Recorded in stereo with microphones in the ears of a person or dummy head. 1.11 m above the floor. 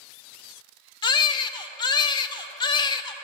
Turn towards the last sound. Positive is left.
turn(degrees=25)  # may be behind; listen again after turning